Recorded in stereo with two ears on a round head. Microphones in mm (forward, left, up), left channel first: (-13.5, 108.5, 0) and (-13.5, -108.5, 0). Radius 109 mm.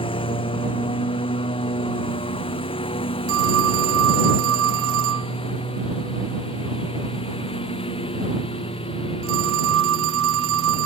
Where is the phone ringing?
65° right (ahead or behind).